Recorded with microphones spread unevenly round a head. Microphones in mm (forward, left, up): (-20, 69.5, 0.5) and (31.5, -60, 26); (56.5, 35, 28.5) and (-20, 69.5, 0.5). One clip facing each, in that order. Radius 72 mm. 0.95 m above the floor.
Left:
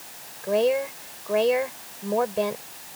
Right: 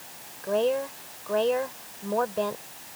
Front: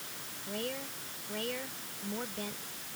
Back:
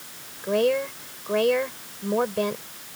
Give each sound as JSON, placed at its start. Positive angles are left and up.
{"t": 0.4, "sound": "a woman speaking", "azimuth_deg": -170}